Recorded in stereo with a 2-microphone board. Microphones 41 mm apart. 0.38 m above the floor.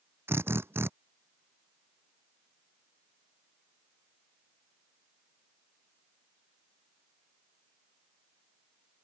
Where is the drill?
80° right.